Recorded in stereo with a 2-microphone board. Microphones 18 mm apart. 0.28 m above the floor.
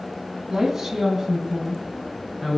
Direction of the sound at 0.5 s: 25° right (ahead or behind).